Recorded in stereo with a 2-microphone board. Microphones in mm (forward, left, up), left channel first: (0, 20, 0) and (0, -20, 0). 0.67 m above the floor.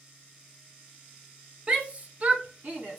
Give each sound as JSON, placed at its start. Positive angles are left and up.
{"t": 1.7, "sound": "a shout", "side_deg": -25, "distance_m": 1.3}